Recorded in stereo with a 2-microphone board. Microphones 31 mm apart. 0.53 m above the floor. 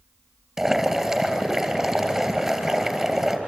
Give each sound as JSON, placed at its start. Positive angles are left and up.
{"t": 0.6, "sound": "boiling", "side_deg": -10, "distance_m": 2.5}